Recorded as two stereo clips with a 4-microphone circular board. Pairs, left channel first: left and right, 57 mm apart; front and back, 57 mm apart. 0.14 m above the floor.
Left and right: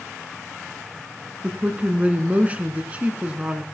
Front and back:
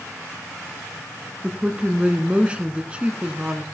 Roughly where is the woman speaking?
Behind right.